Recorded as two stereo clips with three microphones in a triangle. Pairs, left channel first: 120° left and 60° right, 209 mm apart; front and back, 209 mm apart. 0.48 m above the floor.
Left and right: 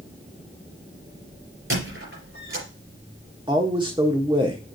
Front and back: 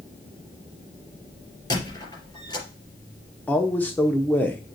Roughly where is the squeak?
Right.